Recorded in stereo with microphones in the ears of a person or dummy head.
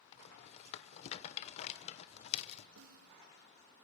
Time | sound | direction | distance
0.1 | a rattle | 40° left (ahead or behind) | 1.1 m
2.8 | a snare drum | 80° right | 0.9 m